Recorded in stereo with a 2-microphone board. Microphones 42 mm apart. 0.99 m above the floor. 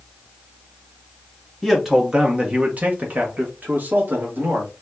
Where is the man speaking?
5° right (ahead or behind), 0.6 m; by 4.7 s 50° right (ahead or behind), 1.7 m.